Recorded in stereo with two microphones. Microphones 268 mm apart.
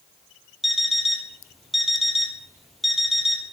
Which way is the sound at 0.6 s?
Centre (ahead or behind).